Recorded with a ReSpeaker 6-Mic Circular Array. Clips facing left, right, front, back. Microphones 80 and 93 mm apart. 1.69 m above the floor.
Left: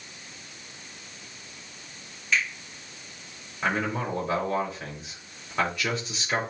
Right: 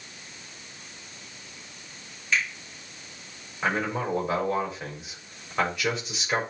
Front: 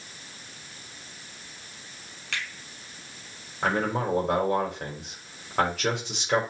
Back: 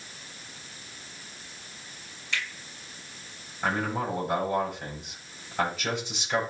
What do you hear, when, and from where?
2.3 s a finger snap: straight ahead, 4.5 m
3.6 s a man speaking: 5° right, 5 m